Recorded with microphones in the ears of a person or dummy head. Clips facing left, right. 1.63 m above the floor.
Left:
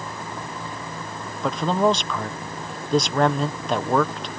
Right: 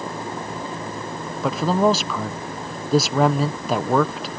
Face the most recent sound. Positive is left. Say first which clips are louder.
# right 2 dB
turn(degrees=0)  # may be behind; listen again after turning